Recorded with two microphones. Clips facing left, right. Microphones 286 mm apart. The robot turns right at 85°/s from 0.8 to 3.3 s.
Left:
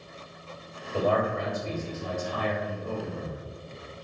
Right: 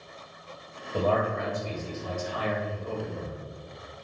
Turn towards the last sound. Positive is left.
turn(degrees=-160)